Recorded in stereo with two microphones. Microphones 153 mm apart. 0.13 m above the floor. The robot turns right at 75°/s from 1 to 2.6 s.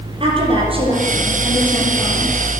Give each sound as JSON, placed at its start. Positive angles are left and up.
{"t": 0.2, "sound": "a woman speaking", "azimuth_deg": -40, "distance_m": 4.0}